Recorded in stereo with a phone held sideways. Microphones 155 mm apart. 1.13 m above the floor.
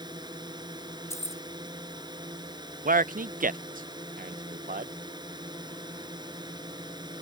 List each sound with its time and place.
0.0 s a drone: 30° right (ahead or behind)
1.1 s keys jangling: 20° left (ahead or behind)
2.9 s a man speaking: 65° right (ahead or behind)